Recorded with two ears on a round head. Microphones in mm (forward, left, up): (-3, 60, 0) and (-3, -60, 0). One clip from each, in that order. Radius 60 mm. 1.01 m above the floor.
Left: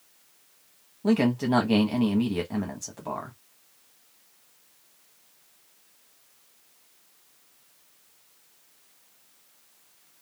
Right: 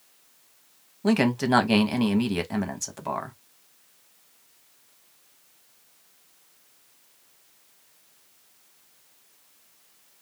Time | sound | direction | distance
1.0 | a man speaking | 40° right (ahead or behind) | 0.9 m